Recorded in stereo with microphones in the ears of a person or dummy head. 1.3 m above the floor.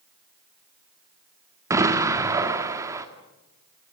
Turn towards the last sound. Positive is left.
turn(degrees=-20)  # may be behind; listen again after turning